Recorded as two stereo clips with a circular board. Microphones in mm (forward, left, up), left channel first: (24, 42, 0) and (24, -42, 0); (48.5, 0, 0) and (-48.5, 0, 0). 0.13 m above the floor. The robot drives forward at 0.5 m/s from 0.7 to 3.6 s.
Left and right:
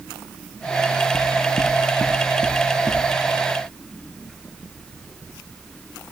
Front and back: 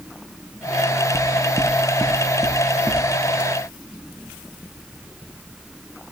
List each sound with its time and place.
1.1 s knocking: 105° left, 0.9 m; by 3.0 s 150° left, 1.5 m